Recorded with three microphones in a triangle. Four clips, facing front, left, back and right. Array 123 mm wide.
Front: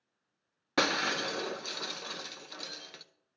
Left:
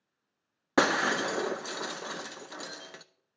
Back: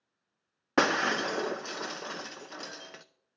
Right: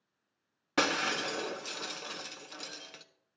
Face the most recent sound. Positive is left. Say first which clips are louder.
# left 5 dB, back 4 dB
turn(degrees=130)